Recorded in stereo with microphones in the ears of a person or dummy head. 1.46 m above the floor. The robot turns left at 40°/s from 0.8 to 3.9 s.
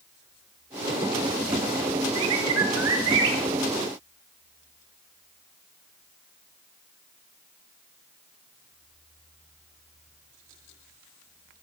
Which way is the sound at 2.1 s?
75° right.